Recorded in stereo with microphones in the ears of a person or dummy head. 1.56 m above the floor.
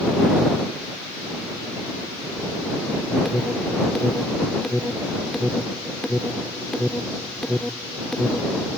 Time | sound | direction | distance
3.2 | an alarm | centre (ahead or behind) | ?